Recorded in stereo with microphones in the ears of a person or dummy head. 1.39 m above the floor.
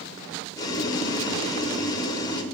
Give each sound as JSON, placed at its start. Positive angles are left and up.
{"t": 0.6, "sound": "boiling", "side_deg": 20, "distance_m": 1.2}